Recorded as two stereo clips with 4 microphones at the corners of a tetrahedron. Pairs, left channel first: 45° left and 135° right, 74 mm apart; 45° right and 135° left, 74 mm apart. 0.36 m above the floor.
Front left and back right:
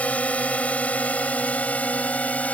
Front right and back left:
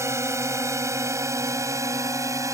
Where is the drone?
105° left; by 2.6 s 110° left.